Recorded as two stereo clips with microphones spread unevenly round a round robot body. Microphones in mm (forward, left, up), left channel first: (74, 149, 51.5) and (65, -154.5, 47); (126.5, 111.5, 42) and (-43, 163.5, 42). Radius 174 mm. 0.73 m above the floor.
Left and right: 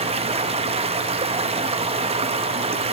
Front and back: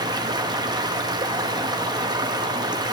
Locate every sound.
0.0 s running water: 145° right, 0.7 m